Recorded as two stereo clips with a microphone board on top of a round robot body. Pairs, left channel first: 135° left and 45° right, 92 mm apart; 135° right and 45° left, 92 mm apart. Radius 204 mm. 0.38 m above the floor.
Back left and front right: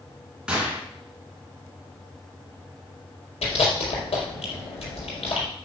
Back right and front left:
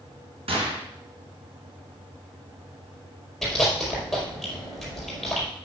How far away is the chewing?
About 5 m.